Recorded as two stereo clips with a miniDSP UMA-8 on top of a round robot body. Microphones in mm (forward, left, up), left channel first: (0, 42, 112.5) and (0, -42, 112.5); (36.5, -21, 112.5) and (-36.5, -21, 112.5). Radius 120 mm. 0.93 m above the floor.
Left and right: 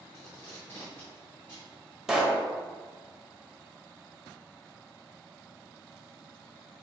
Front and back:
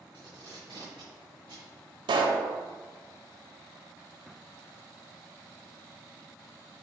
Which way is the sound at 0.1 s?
155° left.